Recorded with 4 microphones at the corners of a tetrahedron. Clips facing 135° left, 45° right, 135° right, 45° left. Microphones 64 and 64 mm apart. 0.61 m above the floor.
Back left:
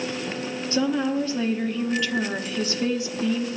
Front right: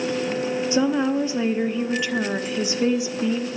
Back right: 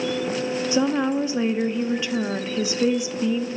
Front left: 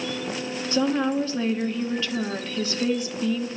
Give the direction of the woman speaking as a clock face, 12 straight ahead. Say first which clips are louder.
Front right 1 dB, even; 3 o'clock.